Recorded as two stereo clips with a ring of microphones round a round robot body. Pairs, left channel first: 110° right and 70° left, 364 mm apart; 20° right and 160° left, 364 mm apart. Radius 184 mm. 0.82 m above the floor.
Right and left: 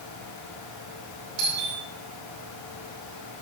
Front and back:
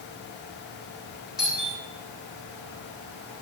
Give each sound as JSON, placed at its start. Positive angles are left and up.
{"t": 1.4, "sound": "a doorbell", "azimuth_deg": 70, "distance_m": 9.0}